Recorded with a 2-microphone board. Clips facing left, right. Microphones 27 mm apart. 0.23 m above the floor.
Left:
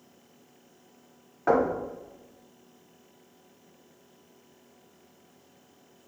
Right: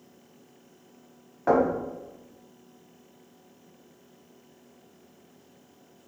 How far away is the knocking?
About 1.1 m.